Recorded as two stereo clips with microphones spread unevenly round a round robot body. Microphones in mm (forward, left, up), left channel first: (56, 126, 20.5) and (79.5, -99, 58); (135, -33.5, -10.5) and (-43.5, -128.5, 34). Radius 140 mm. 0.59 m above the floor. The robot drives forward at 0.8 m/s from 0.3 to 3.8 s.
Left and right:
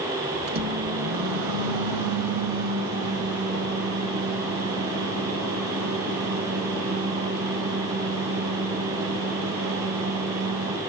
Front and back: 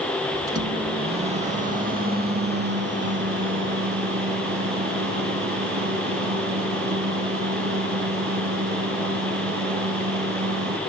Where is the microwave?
75° right, 2.5 m; by 10.8 s 130° right, 3.5 m.